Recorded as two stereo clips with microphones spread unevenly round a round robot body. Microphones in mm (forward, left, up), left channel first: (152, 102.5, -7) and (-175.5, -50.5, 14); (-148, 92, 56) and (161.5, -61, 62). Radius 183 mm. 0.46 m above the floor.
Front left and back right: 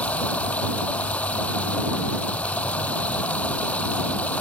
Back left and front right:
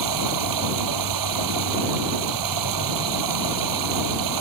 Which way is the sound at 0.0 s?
60° right.